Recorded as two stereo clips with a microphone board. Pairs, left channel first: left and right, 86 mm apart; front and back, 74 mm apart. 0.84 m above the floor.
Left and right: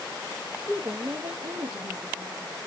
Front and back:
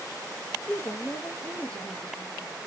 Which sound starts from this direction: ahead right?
A woman speaking, at 0.7 s.